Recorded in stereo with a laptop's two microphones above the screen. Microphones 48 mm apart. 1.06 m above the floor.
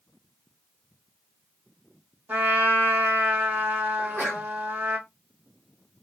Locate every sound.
2.3 s a trumpet: 35° right (ahead or behind), 1.7 m
4.0 s a sneeze: 55° right (ahead or behind), 1.5 m